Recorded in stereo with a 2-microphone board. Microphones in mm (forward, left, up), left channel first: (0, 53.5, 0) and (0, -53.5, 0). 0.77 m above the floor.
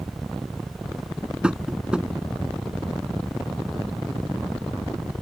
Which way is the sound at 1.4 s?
10° right (ahead or behind).